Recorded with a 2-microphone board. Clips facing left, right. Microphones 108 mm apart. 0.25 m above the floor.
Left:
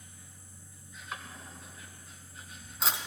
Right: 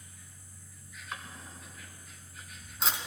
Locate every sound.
0.0 s an insect: 30° left (ahead or behind), 1.3 m
1.1 s a drawer: centre (ahead or behind), 1.2 m